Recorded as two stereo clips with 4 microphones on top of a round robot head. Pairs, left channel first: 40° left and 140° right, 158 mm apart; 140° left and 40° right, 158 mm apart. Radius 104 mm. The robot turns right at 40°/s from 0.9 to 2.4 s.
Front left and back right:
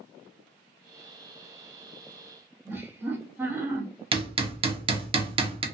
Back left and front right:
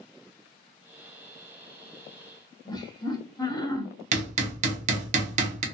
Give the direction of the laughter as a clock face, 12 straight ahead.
6 o'clock.